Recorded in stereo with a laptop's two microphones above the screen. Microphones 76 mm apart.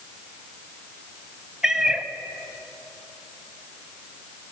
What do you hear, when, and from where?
1.6 s a cat meowing: 5° right (ahead or behind), 0.9 m